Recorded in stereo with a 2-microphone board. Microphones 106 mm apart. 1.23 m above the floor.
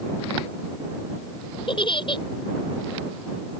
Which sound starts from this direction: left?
A giggle, at 1.7 s.